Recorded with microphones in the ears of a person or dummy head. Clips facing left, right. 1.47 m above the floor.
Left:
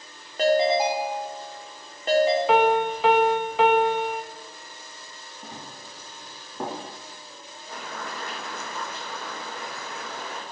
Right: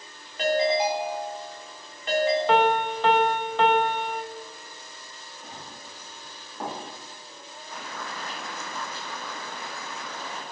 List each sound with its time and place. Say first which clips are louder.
0.4 s a ringtone: left 3 dB; 40° left (ahead or behind), 3.5 m
2.5 s a piano: left 2 dB; 10° left (ahead or behind), 1.5 m
5.4 s running footsteps: left 2 dB; 50° left (ahead or behind), 5 m; by 6.8 s 60° left (ahead or behind), 4.5 m
7.7 s boiling: left 2 dB; 55° left (ahead or behind), 6 m